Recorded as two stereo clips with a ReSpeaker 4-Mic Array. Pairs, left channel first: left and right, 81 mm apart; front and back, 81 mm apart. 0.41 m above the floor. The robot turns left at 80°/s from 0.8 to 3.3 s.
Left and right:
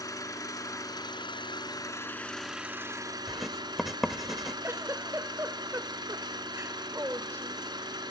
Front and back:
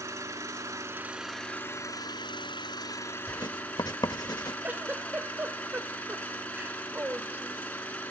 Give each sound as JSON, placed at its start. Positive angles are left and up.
{"t": 0.0, "sound": "an engine running", "azimuth_deg": 130, "distance_m": 3.0}
{"t": 3.3, "sound": "writing", "azimuth_deg": 0, "distance_m": 0.7}
{"t": 4.6, "sound": "a giggle", "azimuth_deg": -125, "distance_m": 1.2}